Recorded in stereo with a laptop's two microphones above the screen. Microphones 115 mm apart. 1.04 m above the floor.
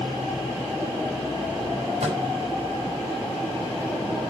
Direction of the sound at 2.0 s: 75° right (ahead or behind).